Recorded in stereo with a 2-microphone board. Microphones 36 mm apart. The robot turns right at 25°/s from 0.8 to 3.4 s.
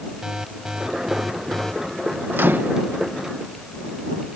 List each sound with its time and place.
0.2 s an alarm: 15° right (ahead or behind); by 1.7 s 10° left (ahead or behind)
2.3 s a microwave: 70° right (ahead or behind); by 2.9 s 60° right (ahead or behind)